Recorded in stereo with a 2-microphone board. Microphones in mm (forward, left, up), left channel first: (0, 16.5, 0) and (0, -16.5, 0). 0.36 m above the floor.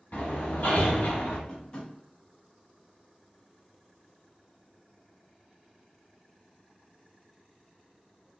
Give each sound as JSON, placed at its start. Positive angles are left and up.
{"t": 0.1, "sound": "hammering", "side_deg": 65, "distance_m": 0.8}
{"t": 1.5, "sound": "tapping", "side_deg": 30, "distance_m": 1.0}